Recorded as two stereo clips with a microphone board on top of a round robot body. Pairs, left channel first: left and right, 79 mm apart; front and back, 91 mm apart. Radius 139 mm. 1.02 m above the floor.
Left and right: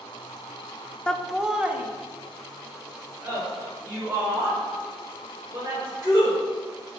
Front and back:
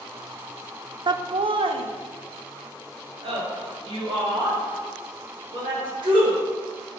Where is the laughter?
165° left, 0.5 m; by 6.3 s 145° right, 4.5 m.